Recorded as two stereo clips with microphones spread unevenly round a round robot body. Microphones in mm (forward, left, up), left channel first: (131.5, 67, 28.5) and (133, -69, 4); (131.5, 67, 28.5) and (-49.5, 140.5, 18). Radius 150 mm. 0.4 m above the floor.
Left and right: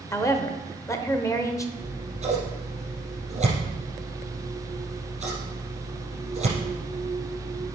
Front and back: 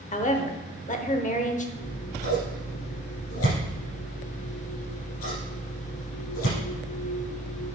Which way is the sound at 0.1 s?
20° left.